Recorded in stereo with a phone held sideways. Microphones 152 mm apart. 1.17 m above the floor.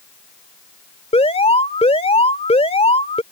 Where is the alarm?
40° left (ahead or behind).